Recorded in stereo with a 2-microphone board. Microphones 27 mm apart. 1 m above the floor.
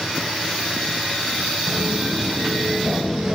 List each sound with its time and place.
1.7 s footsteps: 5° right (ahead or behind), 1.9 m; by 3.4 s 25° right (ahead or behind), 1.2 m